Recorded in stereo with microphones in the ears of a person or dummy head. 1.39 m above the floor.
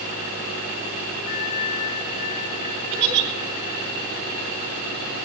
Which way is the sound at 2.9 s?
55° right (ahead or behind).